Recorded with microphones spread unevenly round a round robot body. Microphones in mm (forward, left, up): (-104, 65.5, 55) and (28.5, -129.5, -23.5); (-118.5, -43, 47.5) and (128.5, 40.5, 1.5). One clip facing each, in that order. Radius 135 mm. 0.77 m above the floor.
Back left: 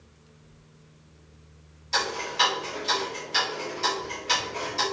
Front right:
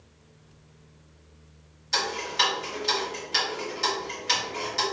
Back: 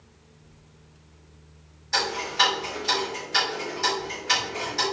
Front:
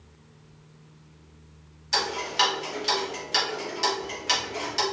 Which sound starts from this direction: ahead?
Ticking, at 1.9 s.